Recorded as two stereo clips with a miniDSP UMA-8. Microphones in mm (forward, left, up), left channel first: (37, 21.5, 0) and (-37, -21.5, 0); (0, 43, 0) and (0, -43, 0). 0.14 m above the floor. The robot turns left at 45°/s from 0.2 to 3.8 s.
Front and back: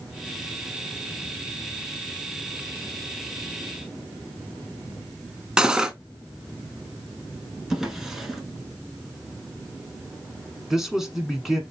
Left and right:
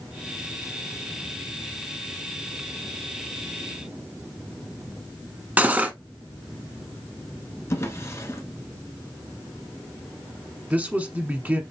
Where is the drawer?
125° left, 1.0 m.